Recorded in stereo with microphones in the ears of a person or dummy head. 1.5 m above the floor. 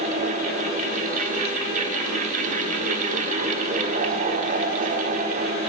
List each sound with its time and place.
0.0 s a fan: 40° right (ahead or behind), 1.3 m